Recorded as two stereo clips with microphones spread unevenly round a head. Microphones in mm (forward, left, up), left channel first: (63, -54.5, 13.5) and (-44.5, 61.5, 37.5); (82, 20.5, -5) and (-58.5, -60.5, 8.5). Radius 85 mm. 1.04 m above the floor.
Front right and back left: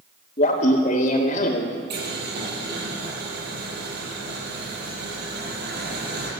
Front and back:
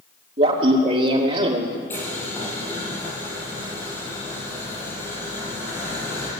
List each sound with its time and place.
0.4 s laughter: 100° right, 2.5 m
1.9 s boiling: 110° left, 7 m